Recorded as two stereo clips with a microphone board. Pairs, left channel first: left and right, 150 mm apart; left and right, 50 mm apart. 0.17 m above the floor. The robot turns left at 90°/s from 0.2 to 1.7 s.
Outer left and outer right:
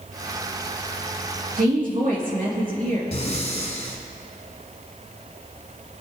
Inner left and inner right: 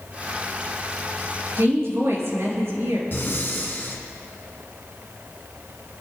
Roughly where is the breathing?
Left.